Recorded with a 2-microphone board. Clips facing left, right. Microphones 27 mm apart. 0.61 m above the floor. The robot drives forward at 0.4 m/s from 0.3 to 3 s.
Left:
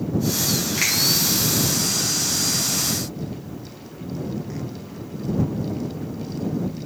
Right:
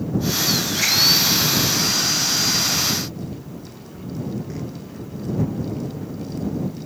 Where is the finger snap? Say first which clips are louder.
Even; 65° left (ahead or behind), 3 m.